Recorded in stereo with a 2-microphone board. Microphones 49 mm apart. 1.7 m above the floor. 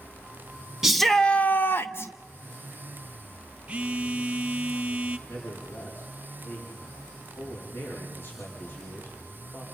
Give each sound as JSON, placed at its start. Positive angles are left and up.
{"t": 0.8, "sound": "a shout", "side_deg": -10, "distance_m": 0.6}
{"t": 3.7, "sound": "a phone buzzing", "side_deg": -25, "distance_m": 0.7}
{"t": 5.3, "sound": "a man speaking", "side_deg": 55, "distance_m": 5.5}